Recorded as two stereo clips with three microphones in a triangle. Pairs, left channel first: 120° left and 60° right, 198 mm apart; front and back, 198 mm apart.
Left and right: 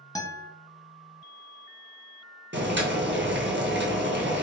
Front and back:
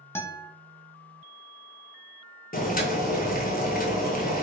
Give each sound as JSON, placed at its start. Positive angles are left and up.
{"t": 0.1, "sound": "a guitar", "azimuth_deg": 65, "distance_m": 0.6}
{"t": 2.5, "sound": "boiling", "azimuth_deg": -40, "distance_m": 0.8}